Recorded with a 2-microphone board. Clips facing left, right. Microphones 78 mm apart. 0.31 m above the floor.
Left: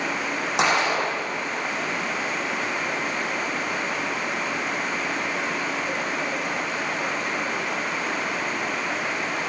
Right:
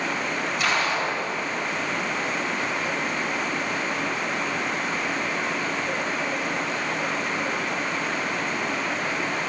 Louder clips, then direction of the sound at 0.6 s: Left 4 dB; 90° left.